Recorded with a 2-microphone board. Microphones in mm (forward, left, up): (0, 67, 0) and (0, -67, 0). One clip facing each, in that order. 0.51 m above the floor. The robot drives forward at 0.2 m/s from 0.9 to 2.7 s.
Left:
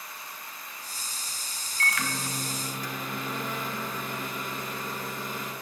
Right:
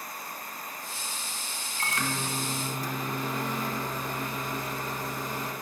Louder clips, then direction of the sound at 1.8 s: Even; 30° right (ahead or behind).